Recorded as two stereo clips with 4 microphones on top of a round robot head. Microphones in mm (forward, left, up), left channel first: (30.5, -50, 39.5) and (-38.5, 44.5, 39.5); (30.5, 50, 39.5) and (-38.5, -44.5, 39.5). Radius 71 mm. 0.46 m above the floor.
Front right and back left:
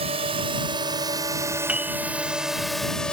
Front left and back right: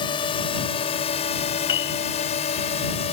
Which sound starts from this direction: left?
A drone, at 0.0 s.